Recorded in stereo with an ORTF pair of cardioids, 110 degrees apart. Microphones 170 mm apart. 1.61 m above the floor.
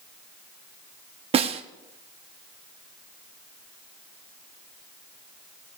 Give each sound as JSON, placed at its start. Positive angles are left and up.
{"t": 1.3, "sound": "a snare drum", "azimuth_deg": -40, "distance_m": 1.1}